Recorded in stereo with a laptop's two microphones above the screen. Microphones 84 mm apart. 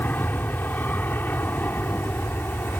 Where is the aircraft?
20° left (ahead or behind); by 2.8 s 25° left (ahead or behind).